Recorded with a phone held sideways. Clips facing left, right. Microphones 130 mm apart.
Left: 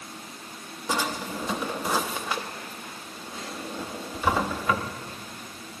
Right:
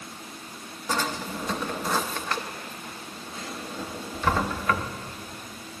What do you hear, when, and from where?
0.9 s a drawer: 10° left (ahead or behind), 0.6 m